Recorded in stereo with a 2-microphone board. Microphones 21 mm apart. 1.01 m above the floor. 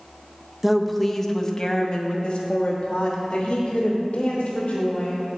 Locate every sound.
0.6 s a woman speaking: 5° right (ahead or behind), 0.7 m; by 5.2 s 70° left (ahead or behind), 3 m